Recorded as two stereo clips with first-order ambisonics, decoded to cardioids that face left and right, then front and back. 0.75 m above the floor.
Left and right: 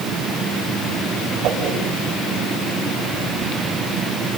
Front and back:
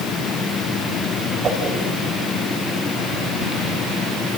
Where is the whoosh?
125° right, 4.5 m.